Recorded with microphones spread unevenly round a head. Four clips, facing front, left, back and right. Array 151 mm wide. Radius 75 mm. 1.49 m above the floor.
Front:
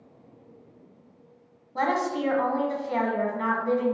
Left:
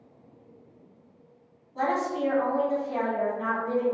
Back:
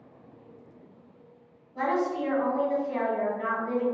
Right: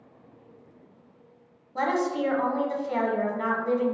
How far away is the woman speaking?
About 1.0 m.